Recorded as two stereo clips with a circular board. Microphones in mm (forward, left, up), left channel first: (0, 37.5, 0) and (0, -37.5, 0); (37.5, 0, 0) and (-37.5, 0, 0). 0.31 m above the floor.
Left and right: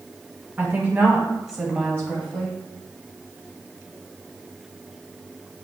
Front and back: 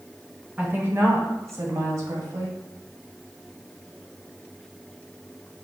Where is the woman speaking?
135° right, 1.0 m; by 2.6 s 150° left, 1.4 m.